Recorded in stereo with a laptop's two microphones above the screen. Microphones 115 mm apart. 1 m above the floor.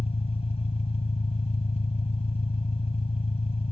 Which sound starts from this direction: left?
An engine running, at 0.0 s.